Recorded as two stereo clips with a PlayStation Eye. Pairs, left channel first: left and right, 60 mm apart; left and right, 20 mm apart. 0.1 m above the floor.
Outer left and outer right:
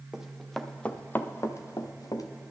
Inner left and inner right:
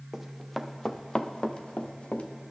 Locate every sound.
0.1 s running footsteps: 10° right (ahead or behind), 1.4 m; by 2.3 s 75° left (ahead or behind), 1.6 m